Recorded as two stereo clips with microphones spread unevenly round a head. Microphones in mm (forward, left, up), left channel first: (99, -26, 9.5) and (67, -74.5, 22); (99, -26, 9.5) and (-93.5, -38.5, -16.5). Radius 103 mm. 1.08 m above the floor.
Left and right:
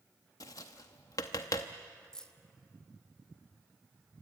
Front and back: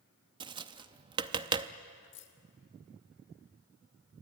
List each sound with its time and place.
0.4 s tapping: 115° left, 0.6 m
2.1 s keys jangling: 20° right, 1.9 m